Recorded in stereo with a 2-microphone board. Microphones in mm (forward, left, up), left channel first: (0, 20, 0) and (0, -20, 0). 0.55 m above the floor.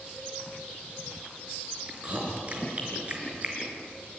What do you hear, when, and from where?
1.9 s chewing: 35° right (ahead or behind), 5 m